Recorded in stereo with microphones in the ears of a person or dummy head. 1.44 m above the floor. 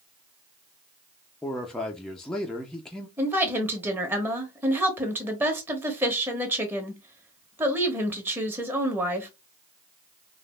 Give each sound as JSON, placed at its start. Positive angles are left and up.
{"t": 1.4, "sound": "a man speaking", "side_deg": 15, "distance_m": 0.6}
{"t": 3.2, "sound": "a woman speaking", "side_deg": -5, "distance_m": 1.1}